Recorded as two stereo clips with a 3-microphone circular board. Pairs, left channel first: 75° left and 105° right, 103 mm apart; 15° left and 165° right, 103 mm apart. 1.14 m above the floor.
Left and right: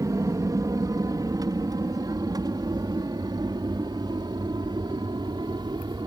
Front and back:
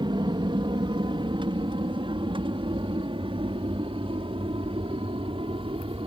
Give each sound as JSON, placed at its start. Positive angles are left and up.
{"t": 0.0, "sound": "an aircraft", "azimuth_deg": -150}